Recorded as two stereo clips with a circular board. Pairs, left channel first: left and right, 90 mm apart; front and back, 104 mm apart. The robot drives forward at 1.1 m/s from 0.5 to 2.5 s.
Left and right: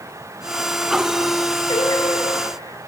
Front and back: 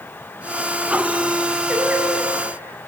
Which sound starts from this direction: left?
Singing, at 1.7 s.